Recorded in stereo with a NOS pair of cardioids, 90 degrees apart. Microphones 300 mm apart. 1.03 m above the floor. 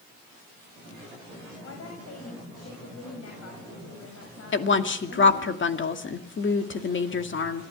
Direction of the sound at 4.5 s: 40° left.